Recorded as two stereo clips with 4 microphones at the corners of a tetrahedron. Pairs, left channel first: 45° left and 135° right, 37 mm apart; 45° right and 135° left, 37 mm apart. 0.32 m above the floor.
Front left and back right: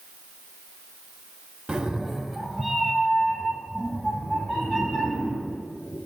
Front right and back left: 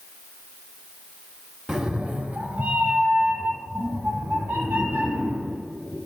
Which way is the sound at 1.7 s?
170° right.